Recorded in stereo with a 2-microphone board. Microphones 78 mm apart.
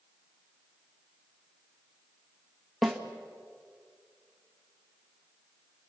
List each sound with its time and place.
2.8 s a snare drum: centre (ahead or behind), 1.8 m